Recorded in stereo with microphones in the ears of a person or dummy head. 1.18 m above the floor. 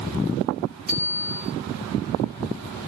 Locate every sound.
0.9 s a bicycle bell: 60° left (ahead or behind), 3.5 m